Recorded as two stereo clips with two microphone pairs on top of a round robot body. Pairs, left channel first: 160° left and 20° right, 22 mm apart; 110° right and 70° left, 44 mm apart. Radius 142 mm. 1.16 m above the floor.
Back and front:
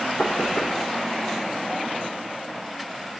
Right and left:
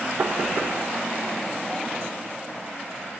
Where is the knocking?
115° left, 0.8 m.